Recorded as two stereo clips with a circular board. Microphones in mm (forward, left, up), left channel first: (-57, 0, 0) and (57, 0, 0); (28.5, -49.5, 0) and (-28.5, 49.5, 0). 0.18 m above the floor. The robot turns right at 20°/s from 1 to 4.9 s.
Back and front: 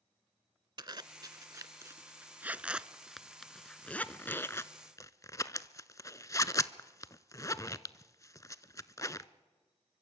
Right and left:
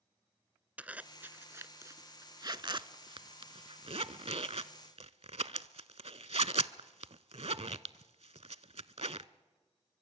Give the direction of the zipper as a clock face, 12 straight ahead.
11 o'clock.